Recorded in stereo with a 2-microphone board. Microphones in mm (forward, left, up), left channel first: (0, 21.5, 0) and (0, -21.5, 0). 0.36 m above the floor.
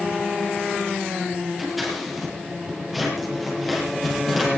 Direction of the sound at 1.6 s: Centre (ahead or behind).